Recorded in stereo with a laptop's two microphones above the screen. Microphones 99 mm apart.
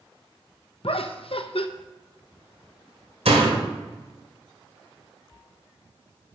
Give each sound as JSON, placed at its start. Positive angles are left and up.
{"t": 0.8, "sound": "laughter", "side_deg": 65, "distance_m": 0.7}
{"t": 3.2, "sound": "a door slam", "side_deg": -85, "distance_m": 2.5}